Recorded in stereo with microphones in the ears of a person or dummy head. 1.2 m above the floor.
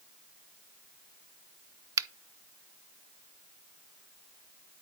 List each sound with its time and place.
2.0 s a finger snap: 25° right (ahead or behind), 0.5 m